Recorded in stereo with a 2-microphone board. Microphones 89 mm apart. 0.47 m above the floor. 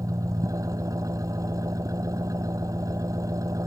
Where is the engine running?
40° right (ahead or behind).